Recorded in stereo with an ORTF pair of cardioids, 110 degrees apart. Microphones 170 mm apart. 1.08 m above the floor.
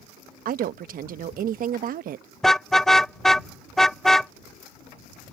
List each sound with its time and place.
0.5 s a woman speaking: 55° right
2.4 s a car horn: straight ahead